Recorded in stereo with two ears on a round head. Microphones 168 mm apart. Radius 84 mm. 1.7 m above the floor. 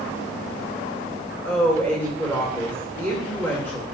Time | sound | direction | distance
1.4 | a woman speaking | 10° left (ahead or behind) | 2.5 m